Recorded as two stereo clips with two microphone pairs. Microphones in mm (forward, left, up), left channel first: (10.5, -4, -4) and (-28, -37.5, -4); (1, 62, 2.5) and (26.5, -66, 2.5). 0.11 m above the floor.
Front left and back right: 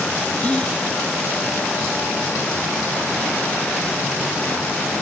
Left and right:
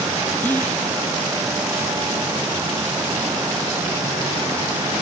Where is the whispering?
50° left.